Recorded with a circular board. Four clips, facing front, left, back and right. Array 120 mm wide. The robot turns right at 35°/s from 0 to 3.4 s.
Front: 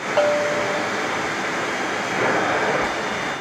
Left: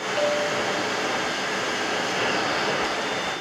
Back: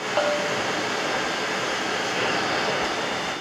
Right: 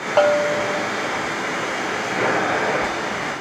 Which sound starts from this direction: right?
A bell, at 0.2 s.